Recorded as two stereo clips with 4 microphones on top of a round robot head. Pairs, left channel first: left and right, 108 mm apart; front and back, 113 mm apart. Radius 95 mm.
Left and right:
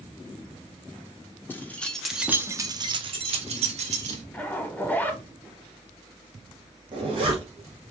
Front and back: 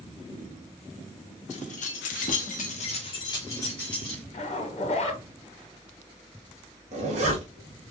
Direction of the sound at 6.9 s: 145° right.